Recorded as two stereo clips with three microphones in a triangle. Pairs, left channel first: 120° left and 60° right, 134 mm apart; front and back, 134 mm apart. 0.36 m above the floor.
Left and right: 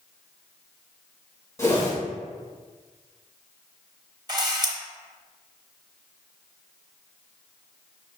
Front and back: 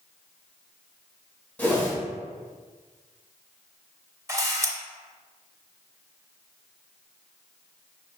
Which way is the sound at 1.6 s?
70° left.